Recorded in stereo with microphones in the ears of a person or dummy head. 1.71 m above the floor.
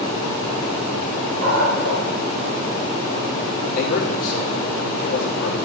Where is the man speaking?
60° left (ahead or behind), 3 m.